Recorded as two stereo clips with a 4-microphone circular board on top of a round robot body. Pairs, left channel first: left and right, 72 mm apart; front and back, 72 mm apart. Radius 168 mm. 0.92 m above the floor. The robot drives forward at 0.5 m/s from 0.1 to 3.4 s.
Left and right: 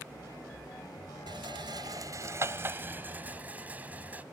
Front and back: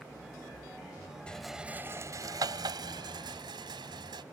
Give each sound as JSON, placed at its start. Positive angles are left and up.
{"t": 1.3, "sound": "a rattle", "azimuth_deg": -75}